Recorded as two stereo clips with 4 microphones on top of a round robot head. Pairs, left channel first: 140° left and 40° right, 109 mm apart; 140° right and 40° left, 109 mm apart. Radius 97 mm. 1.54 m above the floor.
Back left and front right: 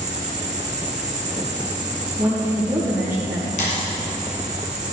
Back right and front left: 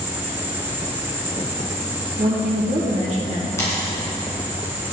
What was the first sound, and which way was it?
An insect, 30° right.